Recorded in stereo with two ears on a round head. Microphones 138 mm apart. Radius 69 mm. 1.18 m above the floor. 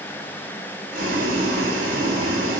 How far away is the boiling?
About 1.2 m.